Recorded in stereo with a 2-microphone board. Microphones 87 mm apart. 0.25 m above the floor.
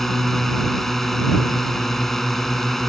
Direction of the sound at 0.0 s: 5° left (ahead or behind).